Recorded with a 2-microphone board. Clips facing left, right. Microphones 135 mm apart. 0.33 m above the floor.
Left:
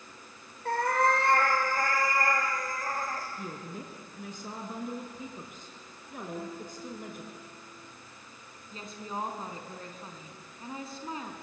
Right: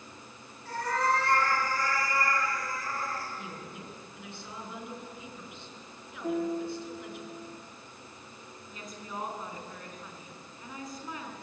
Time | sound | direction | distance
0.7 | a cat meowing | 60° left (ahead or behind) | 4.5 m
3.4 | a woman speaking | 40° left (ahead or behind) | 4.5 m
6.2 | a piano | 75° right (ahead or behind) | 7 m
8.7 | a woman speaking | 30° left (ahead or behind) | 4 m